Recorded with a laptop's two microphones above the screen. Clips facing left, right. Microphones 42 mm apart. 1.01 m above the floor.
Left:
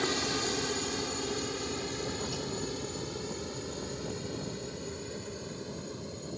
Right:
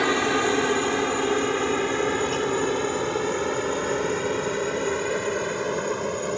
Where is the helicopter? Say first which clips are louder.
Right 10 dB; 45° right (ahead or behind); by 6.4 s 70° right (ahead or behind).